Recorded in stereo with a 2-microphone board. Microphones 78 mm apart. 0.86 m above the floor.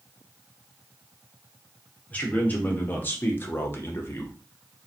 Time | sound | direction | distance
2.1 | a man speaking | 20° left (ahead or behind) | 1.3 m